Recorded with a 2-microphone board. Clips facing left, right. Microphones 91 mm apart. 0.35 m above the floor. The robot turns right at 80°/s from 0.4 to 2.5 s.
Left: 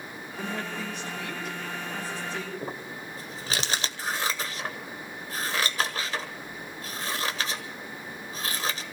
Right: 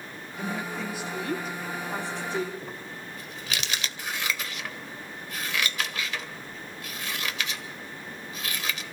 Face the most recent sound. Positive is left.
turn(degrees=35)  # may be behind; listen again after turning